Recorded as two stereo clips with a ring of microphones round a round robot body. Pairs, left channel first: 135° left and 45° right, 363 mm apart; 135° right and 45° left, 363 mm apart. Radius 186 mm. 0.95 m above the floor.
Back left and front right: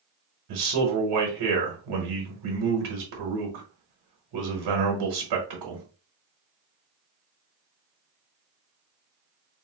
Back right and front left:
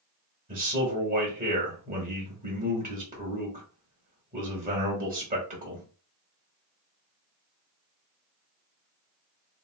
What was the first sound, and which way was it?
A man speaking, 25° right.